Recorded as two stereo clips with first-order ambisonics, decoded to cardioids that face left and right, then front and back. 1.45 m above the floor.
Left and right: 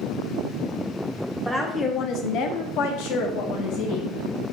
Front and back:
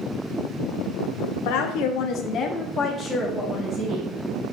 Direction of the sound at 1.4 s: Straight ahead.